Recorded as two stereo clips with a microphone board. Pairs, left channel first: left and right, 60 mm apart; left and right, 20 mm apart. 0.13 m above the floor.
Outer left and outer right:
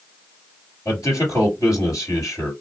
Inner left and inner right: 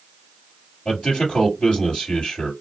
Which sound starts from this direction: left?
A man speaking, at 0.8 s.